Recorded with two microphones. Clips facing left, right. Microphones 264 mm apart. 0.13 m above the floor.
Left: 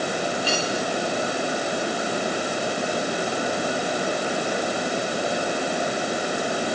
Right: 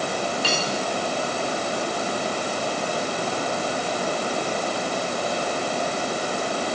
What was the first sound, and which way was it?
Cutlery clinking, 85° right.